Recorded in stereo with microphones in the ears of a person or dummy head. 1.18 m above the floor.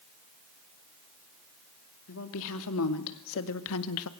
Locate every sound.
2.1 s a woman speaking: 70° left (ahead or behind), 2.5 m